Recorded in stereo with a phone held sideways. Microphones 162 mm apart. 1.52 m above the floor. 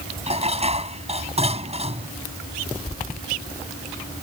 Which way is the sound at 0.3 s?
40° right (ahead or behind).